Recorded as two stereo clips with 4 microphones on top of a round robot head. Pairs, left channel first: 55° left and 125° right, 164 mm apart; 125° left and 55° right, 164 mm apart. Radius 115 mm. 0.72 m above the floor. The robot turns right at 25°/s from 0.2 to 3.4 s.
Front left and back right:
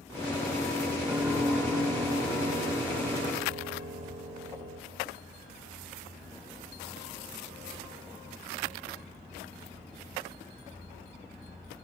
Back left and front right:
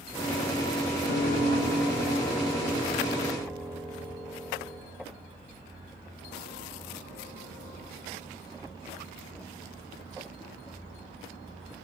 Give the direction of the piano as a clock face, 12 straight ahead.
7 o'clock.